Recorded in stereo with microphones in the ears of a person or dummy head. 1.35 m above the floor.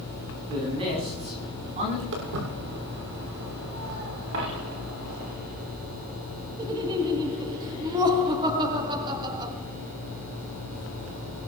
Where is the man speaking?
30° right (ahead or behind), 9 m; by 2.0 s 40° right (ahead or behind), 9.5 m.